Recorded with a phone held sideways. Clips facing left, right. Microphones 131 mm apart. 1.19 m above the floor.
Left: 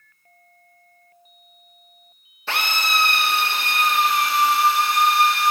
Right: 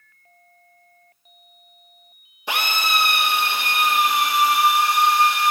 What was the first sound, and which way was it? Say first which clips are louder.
A drill: right 1 dB; 15° right (ahead or behind).